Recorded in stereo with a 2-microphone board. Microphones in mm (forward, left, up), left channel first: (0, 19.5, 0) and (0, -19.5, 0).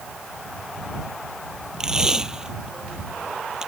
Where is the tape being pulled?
15° right (ahead or behind).